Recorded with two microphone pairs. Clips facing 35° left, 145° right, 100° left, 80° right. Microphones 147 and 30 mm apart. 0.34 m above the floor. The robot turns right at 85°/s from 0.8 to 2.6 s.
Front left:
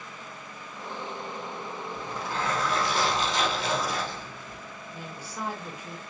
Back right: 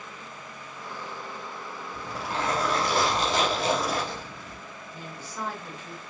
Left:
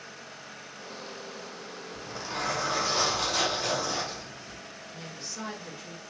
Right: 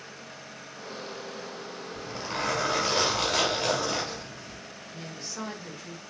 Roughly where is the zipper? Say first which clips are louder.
Back right 2 dB, right 2 dB; behind.